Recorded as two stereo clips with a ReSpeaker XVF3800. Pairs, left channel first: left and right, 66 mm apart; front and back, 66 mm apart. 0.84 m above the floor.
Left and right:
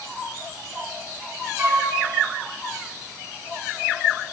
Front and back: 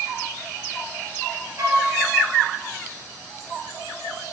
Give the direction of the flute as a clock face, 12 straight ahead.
5 o'clock.